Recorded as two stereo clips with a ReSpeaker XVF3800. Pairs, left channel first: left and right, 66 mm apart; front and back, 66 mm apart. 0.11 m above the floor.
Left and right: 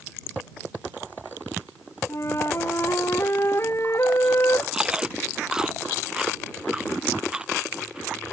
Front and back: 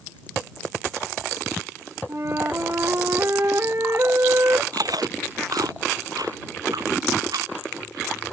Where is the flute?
135° left.